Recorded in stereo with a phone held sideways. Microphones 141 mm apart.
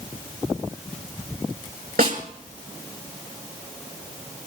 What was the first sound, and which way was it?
A snare drum, 70° right (ahead or behind).